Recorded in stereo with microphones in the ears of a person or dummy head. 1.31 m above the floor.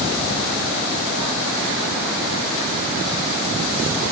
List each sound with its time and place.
Only background noise.